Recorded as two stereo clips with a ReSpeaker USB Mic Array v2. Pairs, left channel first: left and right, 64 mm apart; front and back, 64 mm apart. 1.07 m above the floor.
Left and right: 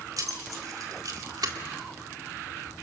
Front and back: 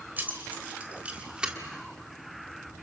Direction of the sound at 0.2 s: 115° right.